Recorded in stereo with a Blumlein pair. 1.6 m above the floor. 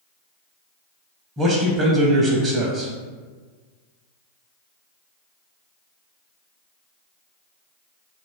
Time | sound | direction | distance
1.4 | a man speaking | 15° right | 0.5 m